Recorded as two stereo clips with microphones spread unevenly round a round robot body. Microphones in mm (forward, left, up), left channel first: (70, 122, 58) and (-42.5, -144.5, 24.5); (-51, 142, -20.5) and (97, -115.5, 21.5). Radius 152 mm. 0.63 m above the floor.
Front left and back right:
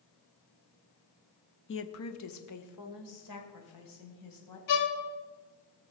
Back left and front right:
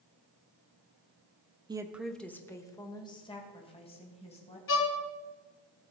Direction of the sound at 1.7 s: 20° left.